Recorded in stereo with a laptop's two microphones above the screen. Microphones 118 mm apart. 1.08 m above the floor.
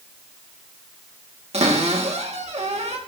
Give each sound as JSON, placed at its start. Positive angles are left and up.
{"t": 1.5, "sound": "a cupboard door", "side_deg": -70, "distance_m": 1.4}